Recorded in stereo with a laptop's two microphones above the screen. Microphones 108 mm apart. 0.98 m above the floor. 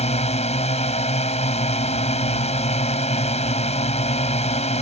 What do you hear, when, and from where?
0.0 s a drone: 85° left